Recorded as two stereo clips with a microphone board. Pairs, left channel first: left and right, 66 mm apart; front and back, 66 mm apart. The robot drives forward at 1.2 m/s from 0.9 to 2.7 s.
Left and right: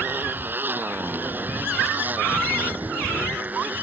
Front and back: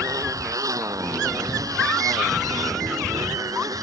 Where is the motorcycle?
150° right; by 3.8 s 155° right.